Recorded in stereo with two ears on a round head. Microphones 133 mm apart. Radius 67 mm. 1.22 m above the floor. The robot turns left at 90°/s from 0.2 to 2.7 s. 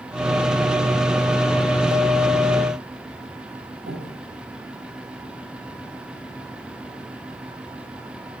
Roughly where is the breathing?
Right.